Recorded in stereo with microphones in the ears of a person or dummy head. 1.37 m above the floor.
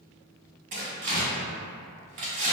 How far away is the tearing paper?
About 1.7 m.